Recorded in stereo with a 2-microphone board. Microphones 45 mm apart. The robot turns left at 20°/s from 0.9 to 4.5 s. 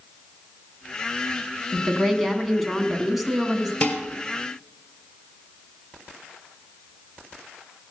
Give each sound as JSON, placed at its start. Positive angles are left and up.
{"t": 1.7, "sound": "a woman speaking", "side_deg": 5, "distance_m": 1.4}
{"t": 3.8, "sound": "dishes clattering", "side_deg": 35, "distance_m": 2.0}